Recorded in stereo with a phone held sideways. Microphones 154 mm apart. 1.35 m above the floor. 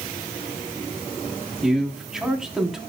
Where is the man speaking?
5° right (ahead or behind), 3.5 m.